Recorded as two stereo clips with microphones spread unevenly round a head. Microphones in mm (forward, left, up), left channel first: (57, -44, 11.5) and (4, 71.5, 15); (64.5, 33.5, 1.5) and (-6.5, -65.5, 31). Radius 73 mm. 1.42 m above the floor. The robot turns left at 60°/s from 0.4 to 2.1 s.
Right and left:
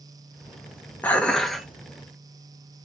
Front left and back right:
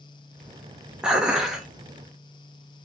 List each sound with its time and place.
1.0 s dishes clattering: 125° right, 0.6 m; by 1.7 s 165° right, 0.6 m